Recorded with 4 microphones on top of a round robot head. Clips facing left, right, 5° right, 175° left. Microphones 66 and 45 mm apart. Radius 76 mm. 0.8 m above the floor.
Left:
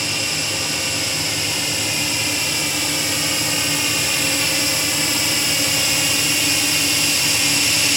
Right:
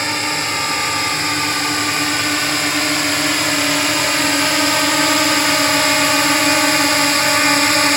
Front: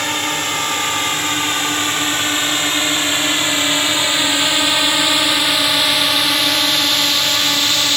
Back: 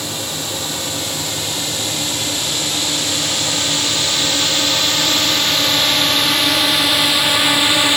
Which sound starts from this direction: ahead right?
A drone, at 0.0 s.